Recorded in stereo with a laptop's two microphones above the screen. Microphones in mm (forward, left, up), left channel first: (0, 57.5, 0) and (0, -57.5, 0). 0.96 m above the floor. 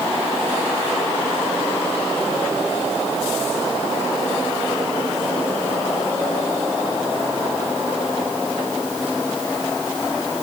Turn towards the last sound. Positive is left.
No sound to turn to.